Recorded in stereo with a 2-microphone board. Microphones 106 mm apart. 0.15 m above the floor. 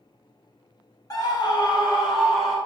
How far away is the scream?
About 1.2 m.